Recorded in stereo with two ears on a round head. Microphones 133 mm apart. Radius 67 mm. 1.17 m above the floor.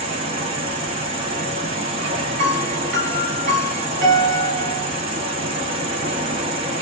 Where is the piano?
80° right, 2.5 m.